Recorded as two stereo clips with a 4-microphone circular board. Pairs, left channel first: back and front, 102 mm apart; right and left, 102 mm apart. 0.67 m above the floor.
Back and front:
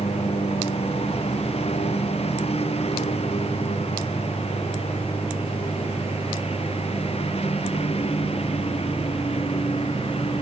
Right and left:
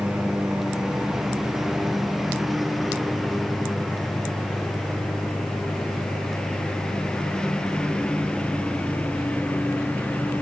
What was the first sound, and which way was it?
A lawn mower, 175° left.